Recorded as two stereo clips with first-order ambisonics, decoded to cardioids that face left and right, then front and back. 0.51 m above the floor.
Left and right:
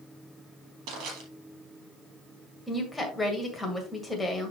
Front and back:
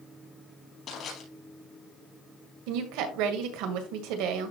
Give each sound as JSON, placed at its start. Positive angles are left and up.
{"t": 0.9, "sound": "crushing", "azimuth_deg": -60, "distance_m": 4.0}
{"t": 2.7, "sound": "a woman speaking", "azimuth_deg": 175, "distance_m": 1.9}